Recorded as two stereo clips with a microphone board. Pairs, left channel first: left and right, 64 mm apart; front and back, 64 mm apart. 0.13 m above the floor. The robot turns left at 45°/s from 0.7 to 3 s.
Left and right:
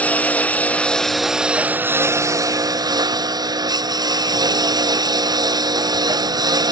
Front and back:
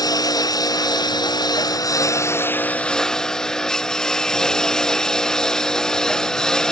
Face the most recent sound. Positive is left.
turn(degrees=-80)